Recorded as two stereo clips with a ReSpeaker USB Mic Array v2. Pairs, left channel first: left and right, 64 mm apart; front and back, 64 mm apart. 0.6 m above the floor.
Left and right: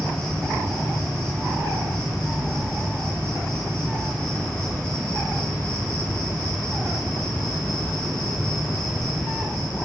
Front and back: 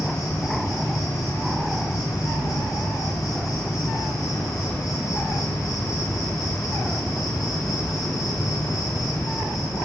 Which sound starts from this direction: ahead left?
An insect, at 0.0 s.